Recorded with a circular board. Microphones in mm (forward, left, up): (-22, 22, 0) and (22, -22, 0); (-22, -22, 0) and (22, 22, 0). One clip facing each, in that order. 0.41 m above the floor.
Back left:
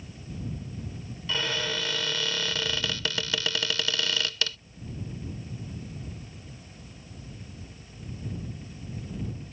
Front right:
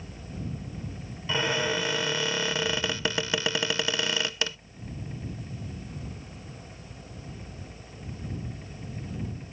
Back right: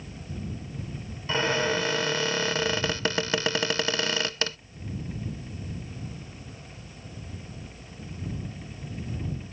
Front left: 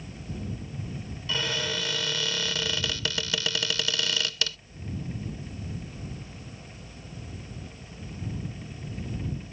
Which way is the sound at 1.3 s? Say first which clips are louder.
Front right 3 dB, back right 6 dB; 105° right.